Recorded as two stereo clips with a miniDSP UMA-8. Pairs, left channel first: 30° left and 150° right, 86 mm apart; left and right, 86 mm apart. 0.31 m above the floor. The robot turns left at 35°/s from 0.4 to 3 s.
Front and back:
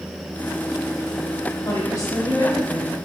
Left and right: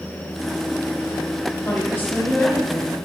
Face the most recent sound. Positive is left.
turn(degrees=5)